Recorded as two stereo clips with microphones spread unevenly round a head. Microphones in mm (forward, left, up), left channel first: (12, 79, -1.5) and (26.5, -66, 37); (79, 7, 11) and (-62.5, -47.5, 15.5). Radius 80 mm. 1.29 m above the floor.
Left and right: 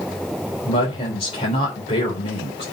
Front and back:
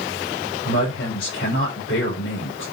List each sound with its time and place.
0.7 s a woman speaking: 40° left, 4 m